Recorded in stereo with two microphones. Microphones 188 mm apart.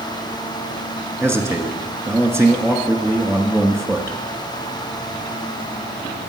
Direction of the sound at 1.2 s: 15° right (ahead or behind).